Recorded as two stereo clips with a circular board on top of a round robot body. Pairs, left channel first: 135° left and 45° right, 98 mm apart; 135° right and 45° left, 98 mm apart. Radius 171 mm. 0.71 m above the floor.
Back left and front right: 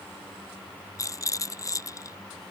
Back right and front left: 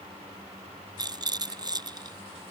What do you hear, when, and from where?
1.0 s a rattle: 85° left